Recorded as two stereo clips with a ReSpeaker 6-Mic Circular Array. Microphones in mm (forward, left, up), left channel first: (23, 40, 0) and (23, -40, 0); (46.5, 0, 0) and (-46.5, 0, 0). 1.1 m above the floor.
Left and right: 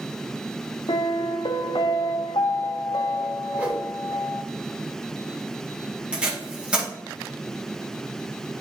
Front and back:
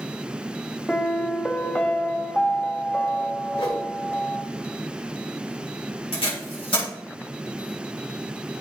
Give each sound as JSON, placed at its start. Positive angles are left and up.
{"t": 0.9, "sound": "a piano", "azimuth_deg": 80, "distance_m": 0.5}
{"t": 3.5, "sound": "a whoosh", "azimuth_deg": -15, "distance_m": 1.7}
{"t": 6.1, "sound": "tape being pulled", "azimuth_deg": -15, "distance_m": 2.5}